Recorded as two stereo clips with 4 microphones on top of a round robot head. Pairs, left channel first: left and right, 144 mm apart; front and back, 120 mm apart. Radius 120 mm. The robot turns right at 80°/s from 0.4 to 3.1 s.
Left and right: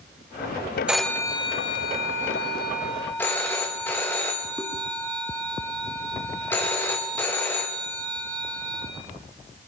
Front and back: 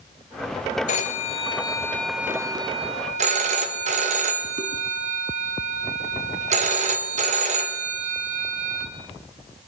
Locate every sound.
0.9 s a phone ringing: 5° right, 0.8 m; by 8.9 s 170° left, 0.8 m